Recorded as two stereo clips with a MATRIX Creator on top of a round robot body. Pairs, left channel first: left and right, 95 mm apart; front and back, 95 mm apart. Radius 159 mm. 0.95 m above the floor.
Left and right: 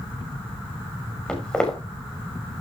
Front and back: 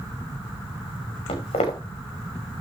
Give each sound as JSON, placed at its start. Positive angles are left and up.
{"t": 1.3, "sound": "footsteps", "azimuth_deg": 10, "distance_m": 6.0}